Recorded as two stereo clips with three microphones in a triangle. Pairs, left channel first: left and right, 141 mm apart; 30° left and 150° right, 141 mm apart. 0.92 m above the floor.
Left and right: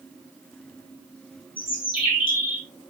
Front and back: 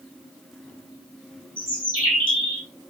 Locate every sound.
1.6 s a bird: 40° left, 4.5 m